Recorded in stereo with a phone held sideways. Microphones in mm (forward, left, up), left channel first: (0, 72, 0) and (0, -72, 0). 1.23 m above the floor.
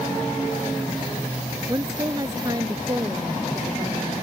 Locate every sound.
1.7 s a woman speaking: 25° right (ahead or behind); by 4.1 s 30° right (ahead or behind)